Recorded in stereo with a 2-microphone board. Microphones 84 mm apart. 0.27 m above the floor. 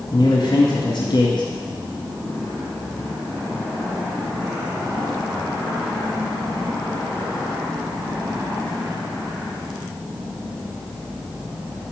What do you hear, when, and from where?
0.1 s a man speaking: 60° left (ahead or behind), 1.9 m